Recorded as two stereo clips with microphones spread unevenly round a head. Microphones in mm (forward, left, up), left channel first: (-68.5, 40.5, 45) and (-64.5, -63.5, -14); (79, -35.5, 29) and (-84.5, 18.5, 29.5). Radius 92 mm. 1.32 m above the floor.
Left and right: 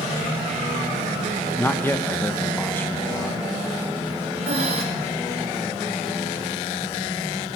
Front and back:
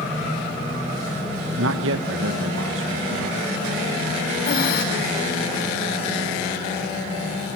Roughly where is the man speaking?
Behind.